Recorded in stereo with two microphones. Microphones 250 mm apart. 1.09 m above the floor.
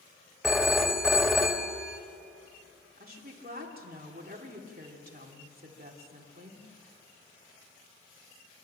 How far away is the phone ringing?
About 1.3 m.